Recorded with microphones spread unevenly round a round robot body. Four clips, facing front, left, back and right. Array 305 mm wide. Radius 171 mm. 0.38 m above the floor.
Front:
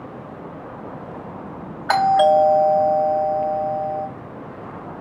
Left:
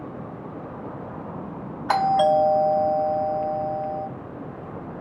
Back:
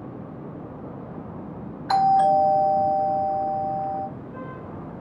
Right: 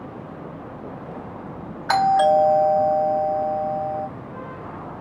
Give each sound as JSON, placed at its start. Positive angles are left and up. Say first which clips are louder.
{"t": 1.9, "sound": "a doorbell", "louder": "right 2 dB, front 3 dB", "azimuth_deg": 0, "distance_m": 3.5}